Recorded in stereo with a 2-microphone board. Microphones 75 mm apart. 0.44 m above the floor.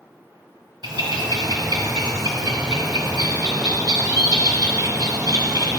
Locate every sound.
0.8 s a bird: 70° right (ahead or behind), 1.4 m